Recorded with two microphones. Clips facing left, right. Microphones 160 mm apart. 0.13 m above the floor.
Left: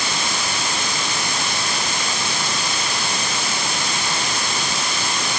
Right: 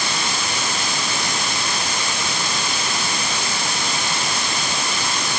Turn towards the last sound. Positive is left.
No sound to turn to.